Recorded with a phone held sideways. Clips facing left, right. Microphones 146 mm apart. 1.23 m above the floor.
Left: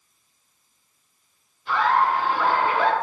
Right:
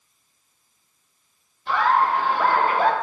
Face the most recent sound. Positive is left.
turn(degrees=-40)  # may be behind; listen again after turning